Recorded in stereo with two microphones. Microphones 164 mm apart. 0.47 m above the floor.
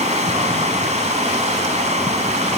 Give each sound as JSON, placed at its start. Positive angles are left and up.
{"t": 0.0, "sound": "running water", "side_deg": -45, "distance_m": 3.5}